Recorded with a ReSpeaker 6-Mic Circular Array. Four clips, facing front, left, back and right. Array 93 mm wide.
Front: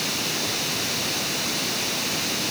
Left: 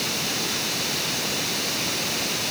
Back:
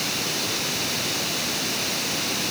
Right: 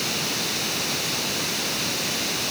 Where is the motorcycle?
No motorcycle in this recording.